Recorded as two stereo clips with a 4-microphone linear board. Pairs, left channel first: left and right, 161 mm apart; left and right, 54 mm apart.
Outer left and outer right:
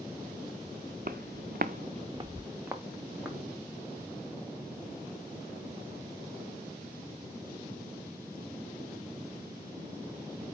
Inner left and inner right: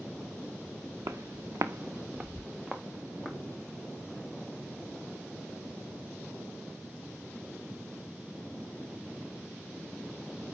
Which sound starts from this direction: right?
Footsteps, at 1.1 s.